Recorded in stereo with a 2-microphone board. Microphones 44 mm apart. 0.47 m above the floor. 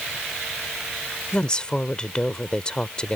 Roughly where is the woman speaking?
Left.